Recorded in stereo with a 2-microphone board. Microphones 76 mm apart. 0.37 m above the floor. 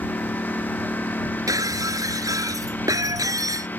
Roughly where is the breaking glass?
Right.